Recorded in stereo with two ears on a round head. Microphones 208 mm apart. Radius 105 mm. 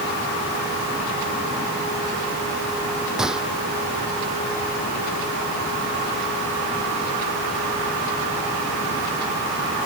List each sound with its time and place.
3.2 s a gunshot: 5° right (ahead or behind)